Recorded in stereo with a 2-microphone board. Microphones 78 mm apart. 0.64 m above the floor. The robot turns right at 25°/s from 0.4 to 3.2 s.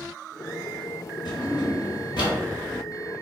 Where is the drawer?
85° left, 1.7 m; by 2.4 s 65° left (ahead or behind), 1.7 m.